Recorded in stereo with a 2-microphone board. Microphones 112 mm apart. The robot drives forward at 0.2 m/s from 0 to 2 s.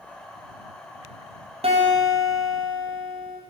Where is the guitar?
75° right (ahead or behind), 0.5 m; by 3.4 s 70° right (ahead or behind), 0.5 m.